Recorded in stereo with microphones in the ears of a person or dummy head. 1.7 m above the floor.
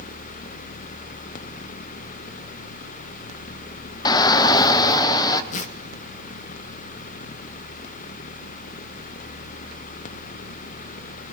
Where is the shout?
25° left (ahead or behind), 0.7 m.